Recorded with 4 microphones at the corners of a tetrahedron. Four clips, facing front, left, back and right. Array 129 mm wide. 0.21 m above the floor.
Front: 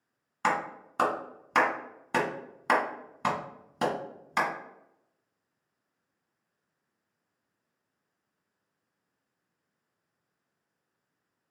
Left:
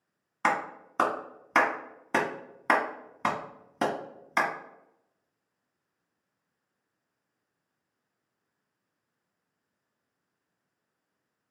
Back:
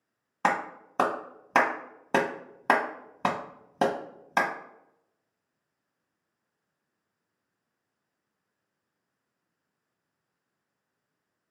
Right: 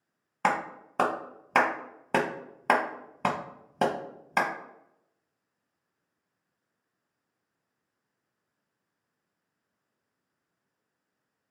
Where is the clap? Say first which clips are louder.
Even, back 2 dB; 150° right, 0.8 m.